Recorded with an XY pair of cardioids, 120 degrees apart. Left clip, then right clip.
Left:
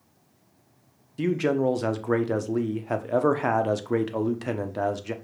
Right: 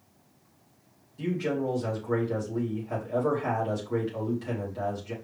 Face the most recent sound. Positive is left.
turn(degrees=65)